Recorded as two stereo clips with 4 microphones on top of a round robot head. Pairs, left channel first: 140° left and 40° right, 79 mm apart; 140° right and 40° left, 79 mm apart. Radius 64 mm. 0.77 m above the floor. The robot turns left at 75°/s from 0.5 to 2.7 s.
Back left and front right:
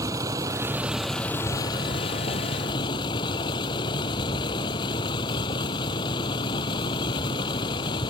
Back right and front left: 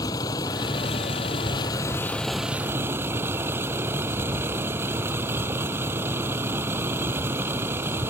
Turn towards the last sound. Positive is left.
turn(degrees=105)